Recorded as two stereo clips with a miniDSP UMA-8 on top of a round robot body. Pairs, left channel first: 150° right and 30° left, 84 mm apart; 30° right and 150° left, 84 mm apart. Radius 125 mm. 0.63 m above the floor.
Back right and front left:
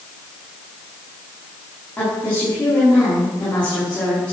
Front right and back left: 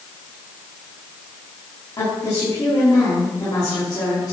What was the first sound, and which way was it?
A woman speaking, 75° right.